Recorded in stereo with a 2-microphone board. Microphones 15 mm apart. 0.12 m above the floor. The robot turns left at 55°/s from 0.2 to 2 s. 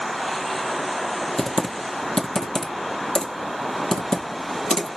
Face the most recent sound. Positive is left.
turn(degrees=60)  # may be behind; listen again after turning